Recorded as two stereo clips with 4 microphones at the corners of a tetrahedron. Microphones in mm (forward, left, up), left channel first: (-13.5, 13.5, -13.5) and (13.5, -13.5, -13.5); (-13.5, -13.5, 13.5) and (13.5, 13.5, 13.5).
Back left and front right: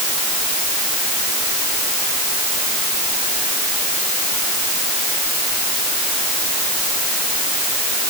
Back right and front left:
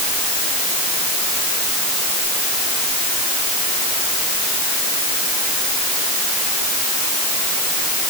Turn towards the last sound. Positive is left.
No sound to turn to.